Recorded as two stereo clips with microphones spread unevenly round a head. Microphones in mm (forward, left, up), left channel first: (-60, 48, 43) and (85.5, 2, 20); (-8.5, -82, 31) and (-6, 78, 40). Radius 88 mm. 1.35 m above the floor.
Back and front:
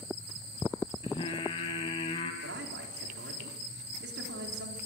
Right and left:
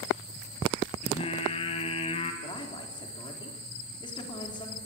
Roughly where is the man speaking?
Ahead right.